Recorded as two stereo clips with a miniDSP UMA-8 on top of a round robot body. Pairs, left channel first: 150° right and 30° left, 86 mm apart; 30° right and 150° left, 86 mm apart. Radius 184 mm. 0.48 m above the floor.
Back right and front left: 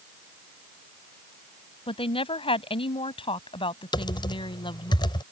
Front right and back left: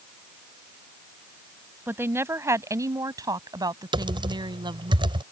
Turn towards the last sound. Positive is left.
turn(degrees=175)